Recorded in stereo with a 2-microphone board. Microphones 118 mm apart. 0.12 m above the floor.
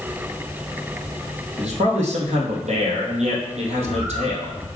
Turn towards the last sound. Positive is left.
turn(degrees=-10)  # may be behind; listen again after turning